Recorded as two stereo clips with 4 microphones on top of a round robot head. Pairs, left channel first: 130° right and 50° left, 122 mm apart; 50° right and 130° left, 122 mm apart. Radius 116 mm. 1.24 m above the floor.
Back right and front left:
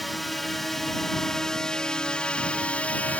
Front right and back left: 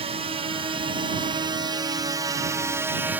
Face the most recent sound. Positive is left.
turn(degrees=175)